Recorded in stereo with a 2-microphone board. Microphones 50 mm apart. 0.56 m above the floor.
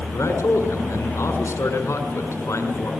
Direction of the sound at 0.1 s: 75° left (ahead or behind).